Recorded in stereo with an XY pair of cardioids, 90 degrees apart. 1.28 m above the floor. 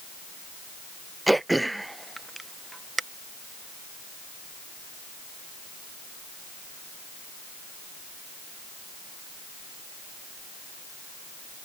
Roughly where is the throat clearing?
Ahead.